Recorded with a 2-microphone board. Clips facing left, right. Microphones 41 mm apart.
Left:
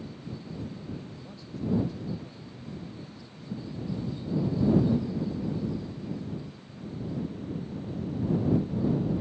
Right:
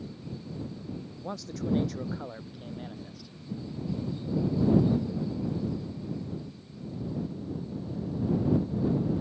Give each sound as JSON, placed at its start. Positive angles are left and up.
{"t": 1.2, "sound": "a man speaking", "side_deg": -75}